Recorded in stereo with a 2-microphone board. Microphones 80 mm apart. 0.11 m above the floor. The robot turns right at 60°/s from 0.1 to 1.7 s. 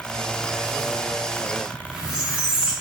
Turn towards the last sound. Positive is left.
turn(degrees=-10)  # may be behind; listen again after turning